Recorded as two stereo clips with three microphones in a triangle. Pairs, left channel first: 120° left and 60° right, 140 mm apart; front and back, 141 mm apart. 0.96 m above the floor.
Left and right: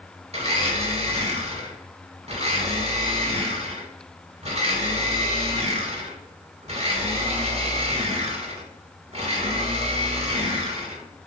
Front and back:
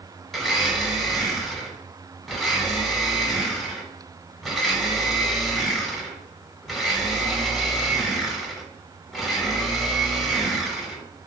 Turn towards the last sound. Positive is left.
turn(degrees=-90)